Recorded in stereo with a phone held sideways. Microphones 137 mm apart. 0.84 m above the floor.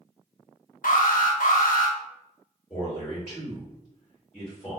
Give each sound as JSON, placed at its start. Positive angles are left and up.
{"t": 0.8, "sound": "an alarm", "side_deg": 75, "distance_m": 0.6}
{"t": 2.7, "sound": "a man speaking", "side_deg": 20, "distance_m": 1.4}